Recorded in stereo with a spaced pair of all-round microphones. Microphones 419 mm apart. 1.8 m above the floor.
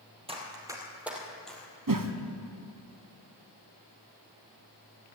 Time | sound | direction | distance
0.3 | running footsteps | 15° right (ahead or behind) | 2.5 m
1.9 | a whoosh | 50° right (ahead or behind) | 0.9 m